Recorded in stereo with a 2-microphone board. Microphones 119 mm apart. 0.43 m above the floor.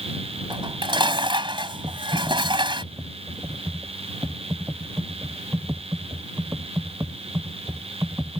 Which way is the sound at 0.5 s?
45° right (ahead or behind).